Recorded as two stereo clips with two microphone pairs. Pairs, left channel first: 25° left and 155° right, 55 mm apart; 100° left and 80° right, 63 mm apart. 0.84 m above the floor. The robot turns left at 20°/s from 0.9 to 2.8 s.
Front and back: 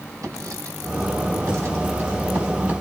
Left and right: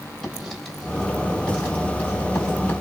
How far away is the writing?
About 3.5 m.